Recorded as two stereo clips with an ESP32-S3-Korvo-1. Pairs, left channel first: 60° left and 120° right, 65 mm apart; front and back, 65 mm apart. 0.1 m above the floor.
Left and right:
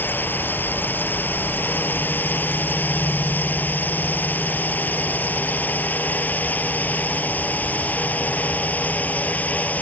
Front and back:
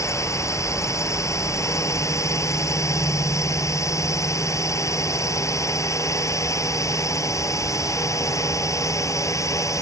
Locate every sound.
0.0 s a drone: 10° left; by 9.8 s straight ahead